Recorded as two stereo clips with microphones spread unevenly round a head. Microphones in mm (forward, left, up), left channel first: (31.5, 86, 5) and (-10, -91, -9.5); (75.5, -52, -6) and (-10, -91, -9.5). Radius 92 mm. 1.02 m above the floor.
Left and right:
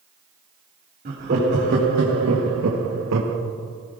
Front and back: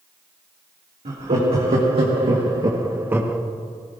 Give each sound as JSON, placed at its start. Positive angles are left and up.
{"t": 1.1, "sound": "laughter", "azimuth_deg": -150, "distance_m": 2.0}